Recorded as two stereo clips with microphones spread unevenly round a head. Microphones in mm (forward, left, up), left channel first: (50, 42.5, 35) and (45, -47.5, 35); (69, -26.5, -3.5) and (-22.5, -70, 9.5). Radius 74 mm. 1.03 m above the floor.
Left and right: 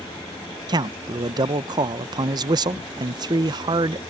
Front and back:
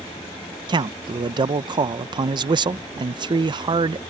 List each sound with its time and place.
0.7 s a man speaking: 120° right